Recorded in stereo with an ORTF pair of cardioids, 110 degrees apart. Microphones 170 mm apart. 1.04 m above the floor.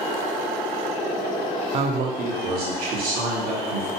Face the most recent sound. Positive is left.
turn(degrees=-75)